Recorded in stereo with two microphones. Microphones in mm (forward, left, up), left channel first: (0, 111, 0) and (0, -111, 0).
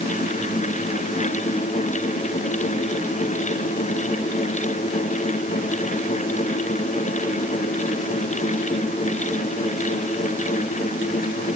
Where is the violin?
No violin in this recording.